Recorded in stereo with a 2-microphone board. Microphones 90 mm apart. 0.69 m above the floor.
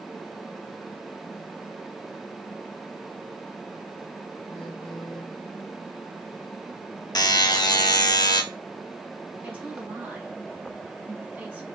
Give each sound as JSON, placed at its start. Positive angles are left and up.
{"t": 4.5, "sound": "a phone buzzing", "side_deg": 55, "distance_m": 2.0}
{"t": 7.2, "sound": "a buzzer", "side_deg": 50, "distance_m": 0.6}
{"t": 9.4, "sound": "a woman speaking", "side_deg": -20, "distance_m": 2.0}